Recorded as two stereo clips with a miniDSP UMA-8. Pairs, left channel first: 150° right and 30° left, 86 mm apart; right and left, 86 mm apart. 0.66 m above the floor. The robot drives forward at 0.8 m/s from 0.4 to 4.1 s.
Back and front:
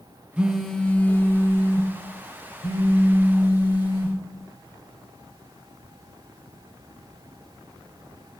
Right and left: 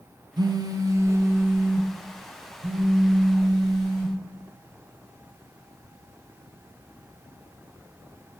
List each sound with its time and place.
0.4 s a phone buzzing: 105° left, 0.7 m; by 4.2 s 170° left, 3 m